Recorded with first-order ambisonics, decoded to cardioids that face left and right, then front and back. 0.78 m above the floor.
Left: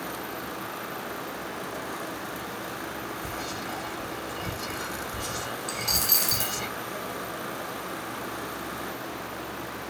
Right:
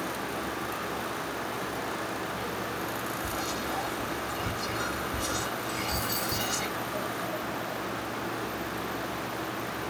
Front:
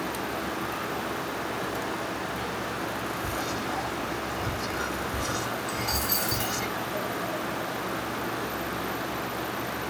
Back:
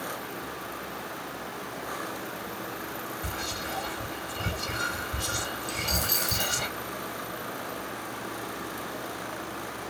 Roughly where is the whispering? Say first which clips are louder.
Right 2 dB, front 3 dB; behind.